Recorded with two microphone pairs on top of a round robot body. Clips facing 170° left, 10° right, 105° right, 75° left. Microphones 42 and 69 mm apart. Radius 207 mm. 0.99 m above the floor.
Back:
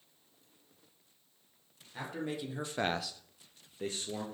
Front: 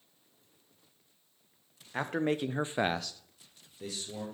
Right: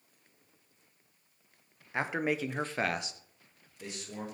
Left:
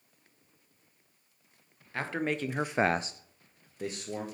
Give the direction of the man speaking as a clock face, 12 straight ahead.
1 o'clock.